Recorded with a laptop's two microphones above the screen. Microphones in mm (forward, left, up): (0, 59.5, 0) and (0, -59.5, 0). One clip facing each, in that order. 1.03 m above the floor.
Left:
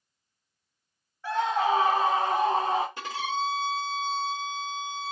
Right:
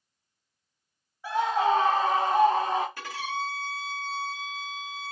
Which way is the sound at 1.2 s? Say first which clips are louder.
Right 1 dB; 10° right (ahead or behind).